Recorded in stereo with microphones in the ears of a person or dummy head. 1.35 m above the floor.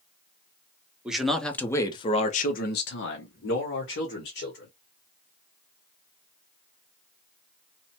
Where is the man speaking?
5° right (ahead or behind), 0.8 m; by 4.7 s 60° left (ahead or behind), 1.5 m.